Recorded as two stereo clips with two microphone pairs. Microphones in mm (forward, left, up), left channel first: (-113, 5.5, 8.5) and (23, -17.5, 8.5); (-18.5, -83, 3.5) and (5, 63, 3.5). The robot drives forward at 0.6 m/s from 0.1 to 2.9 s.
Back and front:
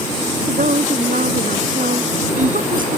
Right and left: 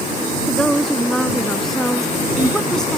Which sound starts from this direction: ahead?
A woman speaking, at 0.5 s.